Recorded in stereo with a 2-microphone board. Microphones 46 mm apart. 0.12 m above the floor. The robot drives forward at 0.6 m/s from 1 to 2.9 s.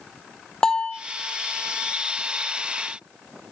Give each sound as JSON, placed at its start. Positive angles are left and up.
{"t": 0.6, "sound": "a bell", "side_deg": 15, "distance_m": 1.0}